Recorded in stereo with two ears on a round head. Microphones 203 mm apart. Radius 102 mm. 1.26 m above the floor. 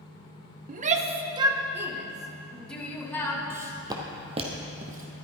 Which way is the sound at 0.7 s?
40° right (ahead or behind).